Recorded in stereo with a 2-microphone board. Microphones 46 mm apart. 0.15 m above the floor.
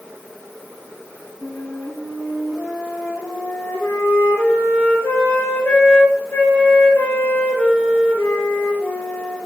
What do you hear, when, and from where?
1.4 s a flute: 65° left (ahead or behind), 3.5 m